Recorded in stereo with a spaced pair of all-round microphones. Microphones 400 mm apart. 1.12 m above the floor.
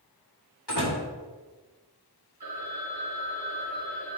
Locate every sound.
0.7 s a door slam: 75° left (ahead or behind), 3.5 m
2.4 s a phone ringing: 70° right (ahead or behind), 3.5 m